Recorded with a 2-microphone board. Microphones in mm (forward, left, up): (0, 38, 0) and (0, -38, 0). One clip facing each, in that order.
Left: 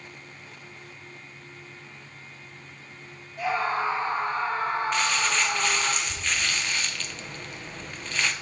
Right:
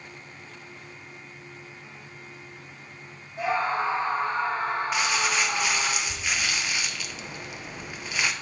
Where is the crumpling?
10° right (ahead or behind), 0.6 m.